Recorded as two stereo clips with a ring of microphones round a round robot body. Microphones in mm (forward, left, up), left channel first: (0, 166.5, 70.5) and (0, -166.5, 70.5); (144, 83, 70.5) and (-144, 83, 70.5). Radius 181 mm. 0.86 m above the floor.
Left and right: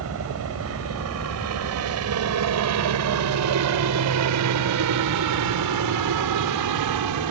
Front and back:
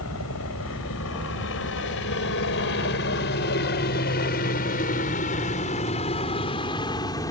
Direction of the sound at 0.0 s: 45° right.